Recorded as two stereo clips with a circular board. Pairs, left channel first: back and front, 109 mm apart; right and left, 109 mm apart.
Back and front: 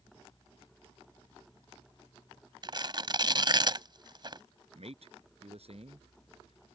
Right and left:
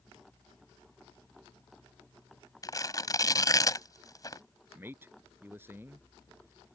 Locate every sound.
2.6 s tearing paper: 40° right
4.8 s a man speaking: 20° left